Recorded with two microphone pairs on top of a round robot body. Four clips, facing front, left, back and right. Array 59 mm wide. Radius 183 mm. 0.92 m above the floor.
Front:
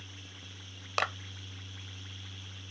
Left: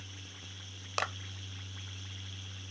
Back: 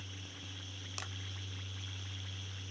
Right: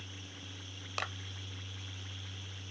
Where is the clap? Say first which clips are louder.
Left 4 dB, front 17 dB; 20° left.